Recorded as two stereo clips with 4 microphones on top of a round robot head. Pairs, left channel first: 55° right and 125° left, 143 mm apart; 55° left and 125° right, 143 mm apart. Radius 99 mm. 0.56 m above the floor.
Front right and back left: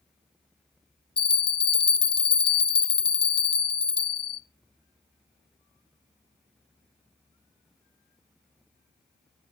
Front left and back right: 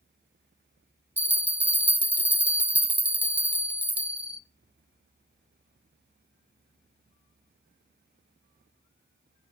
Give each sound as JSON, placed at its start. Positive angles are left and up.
{"t": 1.2, "sound": "a bell", "azimuth_deg": -50, "distance_m": 0.6}